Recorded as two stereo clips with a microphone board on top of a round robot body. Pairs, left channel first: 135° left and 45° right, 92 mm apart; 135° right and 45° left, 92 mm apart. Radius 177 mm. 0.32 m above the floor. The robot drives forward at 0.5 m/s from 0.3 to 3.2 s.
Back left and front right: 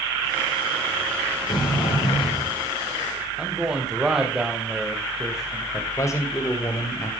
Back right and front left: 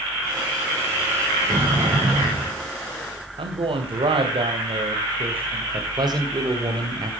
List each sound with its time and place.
1.5 s a sliding door: 95° left, 9.5 m; by 2.6 s 100° left, 9.5 m
3.4 s a man speaking: 40° left, 3 m
5.7 s a man speaking: 80° left, 2.5 m